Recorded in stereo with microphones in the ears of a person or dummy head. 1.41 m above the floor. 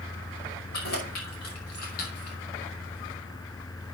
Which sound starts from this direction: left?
Keys jangling, at 0.7 s.